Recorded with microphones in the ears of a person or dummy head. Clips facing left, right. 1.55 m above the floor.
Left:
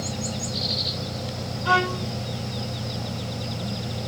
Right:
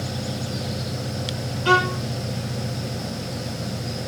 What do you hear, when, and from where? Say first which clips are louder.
0.0 s an engine running: right 1 dB; 80° right, 7 m
1.6 s a violin: right 3 dB; 45° right (ahead or behind), 10 m